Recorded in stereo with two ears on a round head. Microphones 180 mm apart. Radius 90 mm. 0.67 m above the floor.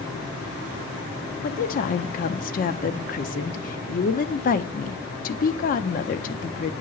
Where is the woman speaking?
45° left (ahead or behind), 0.6 m.